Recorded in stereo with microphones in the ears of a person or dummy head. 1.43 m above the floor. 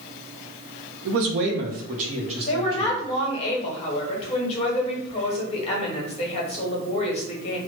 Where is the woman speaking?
35° left (ahead or behind), 1.0 m.